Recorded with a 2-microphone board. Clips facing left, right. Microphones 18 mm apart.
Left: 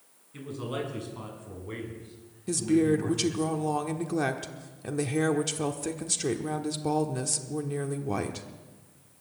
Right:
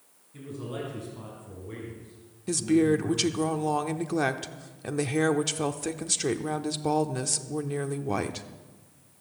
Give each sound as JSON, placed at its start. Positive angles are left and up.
{"t": 0.3, "sound": "a man speaking", "side_deg": 30, "distance_m": 5.5}
{"t": 2.5, "sound": "a woman speaking", "side_deg": -15, "distance_m": 0.8}